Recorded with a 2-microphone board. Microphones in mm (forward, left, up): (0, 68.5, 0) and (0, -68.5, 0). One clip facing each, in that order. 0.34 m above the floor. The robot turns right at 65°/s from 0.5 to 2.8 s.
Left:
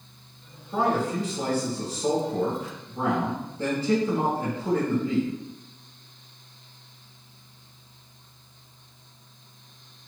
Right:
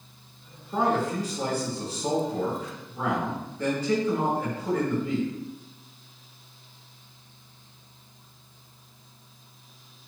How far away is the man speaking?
About 1.7 m.